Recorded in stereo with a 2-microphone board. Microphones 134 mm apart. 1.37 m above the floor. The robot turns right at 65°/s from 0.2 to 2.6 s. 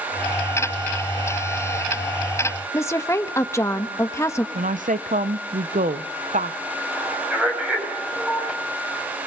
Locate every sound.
2.7 s a woman speaking: 20° left (ahead or behind), 1.4 m
4.5 s a woman speaking: 80° right, 0.8 m
6.9 s a man speaking: 5° right (ahead or behind), 7 m